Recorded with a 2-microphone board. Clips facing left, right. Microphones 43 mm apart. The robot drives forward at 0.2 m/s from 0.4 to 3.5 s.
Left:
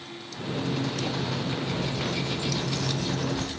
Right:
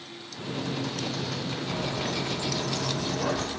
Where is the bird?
75° right (ahead or behind), 1.4 m; by 3.6 s 85° right, 1.3 m.